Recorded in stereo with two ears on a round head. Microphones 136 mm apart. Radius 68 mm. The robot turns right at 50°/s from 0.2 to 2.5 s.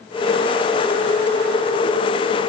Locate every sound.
Only background noise.